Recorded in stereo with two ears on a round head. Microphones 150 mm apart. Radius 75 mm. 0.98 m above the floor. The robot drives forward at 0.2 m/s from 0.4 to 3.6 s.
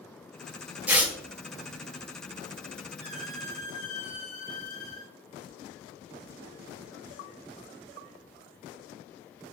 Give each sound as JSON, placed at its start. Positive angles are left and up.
{"t": 0.9, "sound": "tearing paper", "side_deg": -10, "distance_m": 0.6}
{"t": 3.0, "sound": "a squeak", "side_deg": -45, "distance_m": 1.4}